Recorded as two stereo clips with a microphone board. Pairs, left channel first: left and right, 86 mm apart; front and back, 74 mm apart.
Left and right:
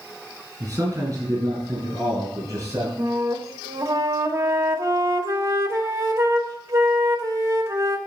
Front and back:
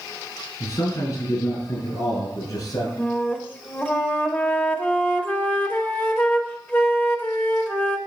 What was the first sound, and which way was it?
A man speaking, 35° right.